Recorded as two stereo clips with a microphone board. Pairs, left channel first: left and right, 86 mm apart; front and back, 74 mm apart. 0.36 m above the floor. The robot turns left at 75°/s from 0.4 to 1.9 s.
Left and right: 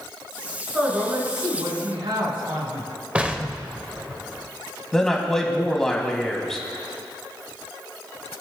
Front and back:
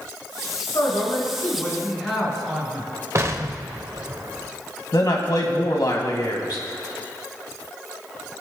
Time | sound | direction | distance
0.7 | a man speaking | 5° right | 4 m
3.1 | an explosion | 160° right | 0.8 m
4.9 | a man speaking | 5° left | 2 m